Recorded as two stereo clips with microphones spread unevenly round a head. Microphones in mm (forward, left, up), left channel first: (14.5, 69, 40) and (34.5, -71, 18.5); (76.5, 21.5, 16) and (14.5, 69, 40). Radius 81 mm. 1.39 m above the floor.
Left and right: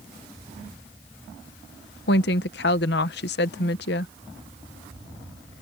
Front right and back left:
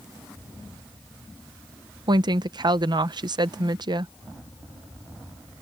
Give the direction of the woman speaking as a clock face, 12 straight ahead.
8 o'clock.